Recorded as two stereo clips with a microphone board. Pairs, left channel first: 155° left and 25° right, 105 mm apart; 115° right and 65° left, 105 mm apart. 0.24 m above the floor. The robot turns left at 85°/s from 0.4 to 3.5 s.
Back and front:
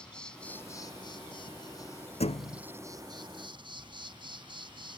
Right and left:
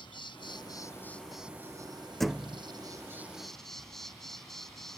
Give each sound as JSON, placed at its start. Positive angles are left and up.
{"t": 0.0, "sound": "an insect", "azimuth_deg": -125}
{"t": 2.2, "sound": "a thud", "azimuth_deg": 160}